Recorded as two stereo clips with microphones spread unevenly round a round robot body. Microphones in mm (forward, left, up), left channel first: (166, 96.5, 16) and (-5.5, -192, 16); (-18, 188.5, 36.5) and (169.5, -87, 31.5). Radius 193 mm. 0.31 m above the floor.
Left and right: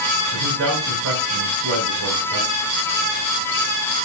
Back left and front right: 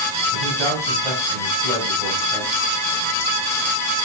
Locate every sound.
0.3 s a man speaking: 75° right, 6 m